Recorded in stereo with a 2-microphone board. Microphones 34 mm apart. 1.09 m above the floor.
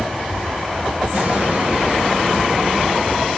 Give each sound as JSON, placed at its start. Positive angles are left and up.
{"t": 1.1, "sound": "an explosion", "side_deg": -55, "distance_m": 3.5}